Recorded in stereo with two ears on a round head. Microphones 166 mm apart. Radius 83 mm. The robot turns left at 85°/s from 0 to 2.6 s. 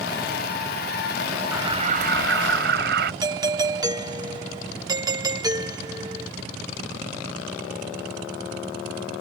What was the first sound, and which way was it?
An alarm, 10° right.